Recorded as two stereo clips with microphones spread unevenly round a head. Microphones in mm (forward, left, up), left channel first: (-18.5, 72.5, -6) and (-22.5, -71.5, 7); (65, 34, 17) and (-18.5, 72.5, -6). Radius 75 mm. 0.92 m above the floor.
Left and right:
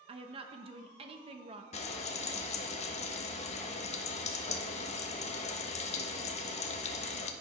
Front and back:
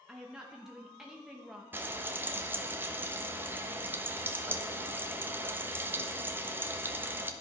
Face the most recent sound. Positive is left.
turn(degrees=105)